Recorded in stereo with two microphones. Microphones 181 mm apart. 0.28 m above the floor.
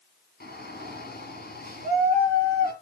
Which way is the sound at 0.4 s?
60° left (ahead or behind).